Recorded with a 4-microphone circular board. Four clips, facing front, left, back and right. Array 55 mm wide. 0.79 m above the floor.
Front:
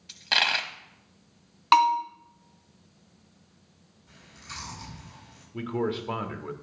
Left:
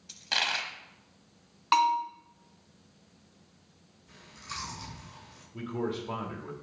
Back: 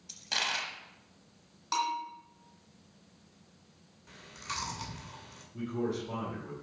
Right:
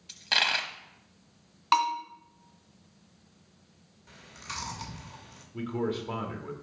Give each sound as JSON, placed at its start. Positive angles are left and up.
{"t": 0.1, "sound": "a dropped coin", "azimuth_deg": -15, "distance_m": 0.8}
{"t": 1.7, "sound": "a bell", "azimuth_deg": 0, "distance_m": 1.5}
{"t": 4.1, "sound": "chewing", "azimuth_deg": -135, "distance_m": 2.5}
{"t": 5.5, "sound": "a man speaking", "azimuth_deg": -5, "distance_m": 1.2}